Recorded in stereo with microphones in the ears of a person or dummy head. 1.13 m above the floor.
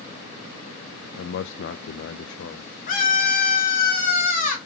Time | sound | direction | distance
1.2 | a man speaking | 60° left (ahead or behind) | 0.5 m
2.9 | a scream | 45° left (ahead or behind) | 3 m